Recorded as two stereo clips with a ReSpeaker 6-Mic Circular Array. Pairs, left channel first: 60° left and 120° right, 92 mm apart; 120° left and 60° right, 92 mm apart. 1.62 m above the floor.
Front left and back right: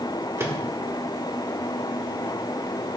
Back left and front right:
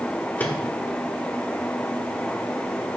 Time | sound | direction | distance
0.4 | a microwave | 175° right | 1.2 m